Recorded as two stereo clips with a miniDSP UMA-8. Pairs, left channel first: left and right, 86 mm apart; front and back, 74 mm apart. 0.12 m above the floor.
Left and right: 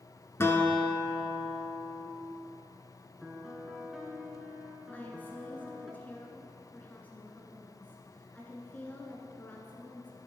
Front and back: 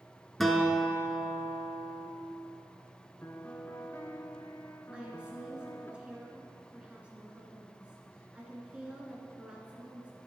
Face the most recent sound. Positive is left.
turn(degrees=125)